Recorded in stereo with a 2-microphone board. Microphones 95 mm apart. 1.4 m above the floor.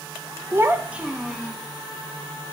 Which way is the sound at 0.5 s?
30° right (ahead or behind).